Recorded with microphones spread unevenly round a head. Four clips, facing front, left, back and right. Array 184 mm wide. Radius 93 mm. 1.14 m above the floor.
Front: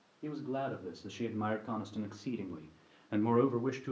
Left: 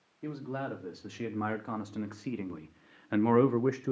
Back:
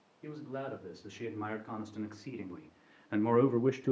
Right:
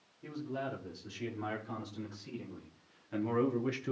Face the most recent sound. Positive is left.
turn(degrees=165)